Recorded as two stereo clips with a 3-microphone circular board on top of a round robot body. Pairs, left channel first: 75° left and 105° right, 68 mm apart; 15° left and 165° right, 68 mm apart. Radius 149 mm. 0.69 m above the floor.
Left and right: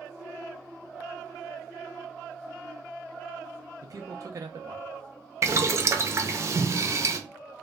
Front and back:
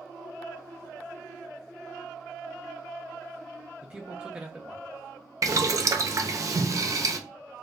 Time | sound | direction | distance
3.8 | a man speaking | 95° right | 0.6 m
5.4 | boiling | 140° right | 0.6 m